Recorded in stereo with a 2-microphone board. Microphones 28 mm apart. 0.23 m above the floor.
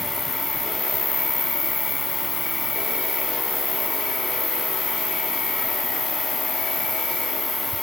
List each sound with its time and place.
0.0 s an insect: 60° right (ahead or behind), 3 m